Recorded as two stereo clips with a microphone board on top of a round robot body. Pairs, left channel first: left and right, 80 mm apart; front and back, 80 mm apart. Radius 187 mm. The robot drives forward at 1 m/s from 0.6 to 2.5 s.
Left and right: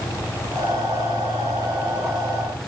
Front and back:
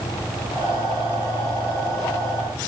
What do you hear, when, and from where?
Only background noise.